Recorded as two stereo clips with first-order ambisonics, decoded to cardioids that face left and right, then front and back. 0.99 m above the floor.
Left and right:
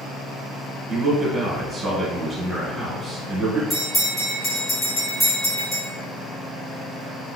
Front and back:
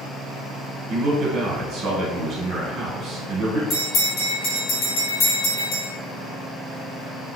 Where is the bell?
20° left, 1.7 m.